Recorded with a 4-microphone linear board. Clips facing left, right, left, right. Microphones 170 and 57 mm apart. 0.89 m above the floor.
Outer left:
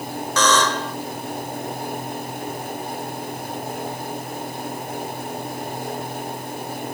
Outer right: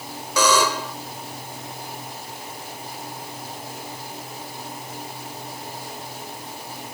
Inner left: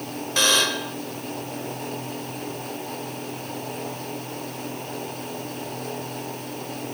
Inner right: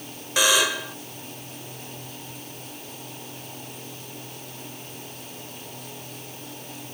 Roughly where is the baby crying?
I don't hear a baby crying.